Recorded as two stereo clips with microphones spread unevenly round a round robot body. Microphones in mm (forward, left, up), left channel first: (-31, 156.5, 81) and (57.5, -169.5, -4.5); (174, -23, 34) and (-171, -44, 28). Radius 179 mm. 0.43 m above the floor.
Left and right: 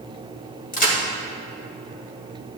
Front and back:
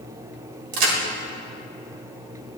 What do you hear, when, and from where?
0.7 s a crack: straight behind, 1.6 m